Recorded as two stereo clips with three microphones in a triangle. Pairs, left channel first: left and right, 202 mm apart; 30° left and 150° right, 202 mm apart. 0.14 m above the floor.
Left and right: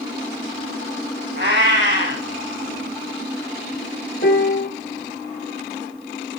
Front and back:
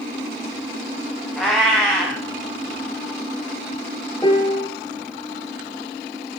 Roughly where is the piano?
Left.